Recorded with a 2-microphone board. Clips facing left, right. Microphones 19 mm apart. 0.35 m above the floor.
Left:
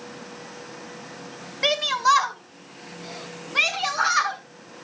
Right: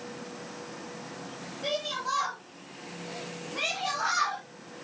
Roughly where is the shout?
Left.